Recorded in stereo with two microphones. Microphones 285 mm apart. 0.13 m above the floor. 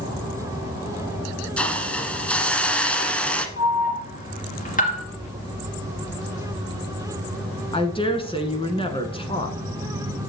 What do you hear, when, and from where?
1.6 s a hiss: 5° left (ahead or behind), 0.9 m
3.6 s an alarm: 30° left (ahead or behind), 2 m
5.2 s whispering: 60° left (ahead or behind), 6 m
7.7 s a woman speaking: 20° left (ahead or behind), 1.1 m